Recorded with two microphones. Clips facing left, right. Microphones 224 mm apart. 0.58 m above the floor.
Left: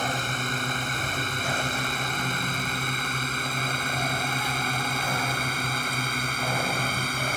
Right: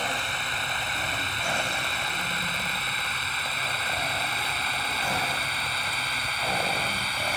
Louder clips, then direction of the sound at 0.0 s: Left 4 dB; 45° left (ahead or behind).